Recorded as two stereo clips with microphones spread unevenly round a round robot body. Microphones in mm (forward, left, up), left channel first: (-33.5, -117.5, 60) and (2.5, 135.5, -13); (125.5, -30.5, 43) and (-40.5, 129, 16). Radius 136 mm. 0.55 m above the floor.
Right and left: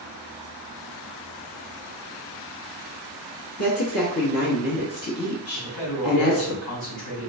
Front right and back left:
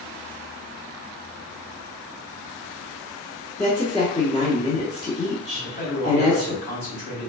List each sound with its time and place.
3.6 s a woman speaking: 115° right, 1.1 m
5.5 s a man speaking: 125° right, 2 m